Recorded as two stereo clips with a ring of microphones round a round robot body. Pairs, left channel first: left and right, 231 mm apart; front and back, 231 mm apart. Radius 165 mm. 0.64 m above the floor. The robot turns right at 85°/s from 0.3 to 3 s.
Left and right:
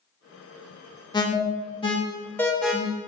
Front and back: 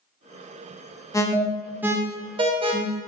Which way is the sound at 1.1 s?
50° left.